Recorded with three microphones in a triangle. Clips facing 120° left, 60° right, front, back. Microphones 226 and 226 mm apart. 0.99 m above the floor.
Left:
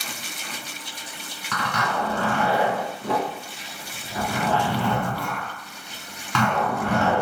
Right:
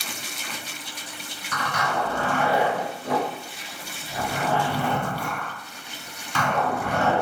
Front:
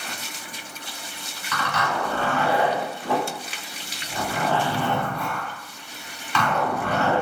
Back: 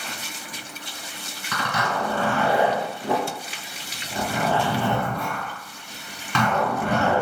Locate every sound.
1.5 s a zipper: 135° left, 1.8 m